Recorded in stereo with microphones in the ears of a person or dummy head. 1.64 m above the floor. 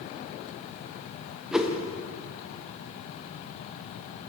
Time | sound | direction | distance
1.5 | a whoosh | centre (ahead or behind) | 0.6 m